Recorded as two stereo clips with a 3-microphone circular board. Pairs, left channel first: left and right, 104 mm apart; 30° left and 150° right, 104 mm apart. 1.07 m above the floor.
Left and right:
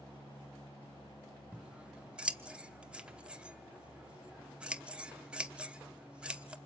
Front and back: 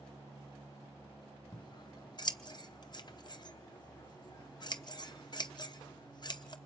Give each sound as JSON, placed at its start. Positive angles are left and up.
{"t": 1.5, "sound": "scissors", "azimuth_deg": -10, "distance_m": 0.9}